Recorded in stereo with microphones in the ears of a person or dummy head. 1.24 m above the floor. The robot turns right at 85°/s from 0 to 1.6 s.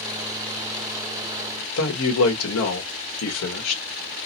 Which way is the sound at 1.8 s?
80° left.